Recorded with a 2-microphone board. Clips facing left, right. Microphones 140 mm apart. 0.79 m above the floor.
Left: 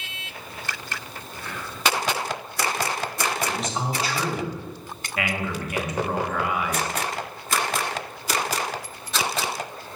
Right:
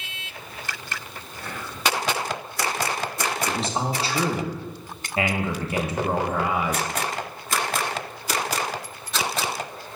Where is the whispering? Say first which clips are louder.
Right 1 dB; 45° right (ahead or behind), 1.4 m.